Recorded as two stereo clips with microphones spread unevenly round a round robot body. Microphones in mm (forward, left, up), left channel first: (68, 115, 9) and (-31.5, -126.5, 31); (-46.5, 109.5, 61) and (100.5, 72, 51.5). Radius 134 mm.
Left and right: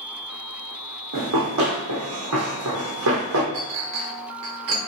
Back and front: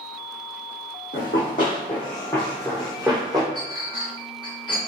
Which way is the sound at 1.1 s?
145° right.